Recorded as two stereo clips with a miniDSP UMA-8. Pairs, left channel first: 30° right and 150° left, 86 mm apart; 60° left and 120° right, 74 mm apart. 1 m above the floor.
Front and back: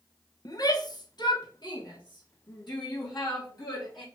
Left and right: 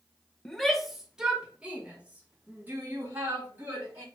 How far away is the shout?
About 0.7 m.